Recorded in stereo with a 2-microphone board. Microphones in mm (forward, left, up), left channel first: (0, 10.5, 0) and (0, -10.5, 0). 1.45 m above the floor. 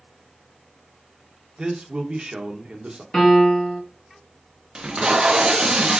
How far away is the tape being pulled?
About 0.6 m.